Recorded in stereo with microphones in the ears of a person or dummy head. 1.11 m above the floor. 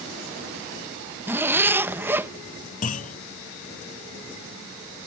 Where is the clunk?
40° left (ahead or behind).